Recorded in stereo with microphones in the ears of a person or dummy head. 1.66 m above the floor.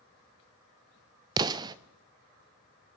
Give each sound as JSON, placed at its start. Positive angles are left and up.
{"t": 1.4, "sound": "an explosion", "side_deg": -25, "distance_m": 0.5}